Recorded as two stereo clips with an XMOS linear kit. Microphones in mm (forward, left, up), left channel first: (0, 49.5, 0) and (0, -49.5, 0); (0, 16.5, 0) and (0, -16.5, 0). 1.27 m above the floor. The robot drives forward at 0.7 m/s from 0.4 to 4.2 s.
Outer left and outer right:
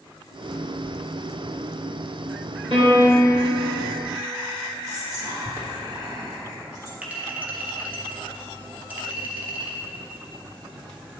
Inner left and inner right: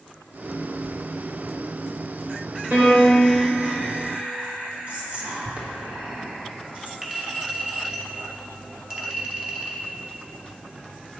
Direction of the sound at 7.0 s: 15° right (ahead or behind).